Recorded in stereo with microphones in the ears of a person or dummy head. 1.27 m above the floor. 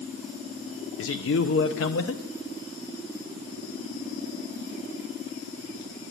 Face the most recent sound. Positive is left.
turn(degrees=65)  # may be behind; listen again after turning